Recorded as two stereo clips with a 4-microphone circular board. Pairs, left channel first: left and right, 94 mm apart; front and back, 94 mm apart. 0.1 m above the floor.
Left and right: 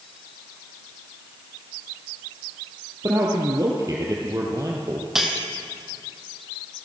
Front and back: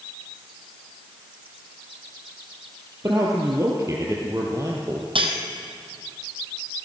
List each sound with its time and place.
3.0 s a man speaking: 130° right, 2.5 m
5.2 s cutlery clinking: 175° right, 2 m